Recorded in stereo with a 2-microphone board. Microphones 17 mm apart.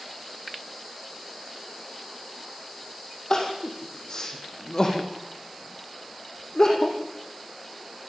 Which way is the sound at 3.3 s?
35° left (ahead or behind).